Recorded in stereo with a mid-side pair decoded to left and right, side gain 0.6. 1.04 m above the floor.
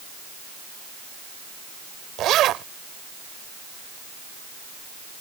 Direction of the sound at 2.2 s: 60° right.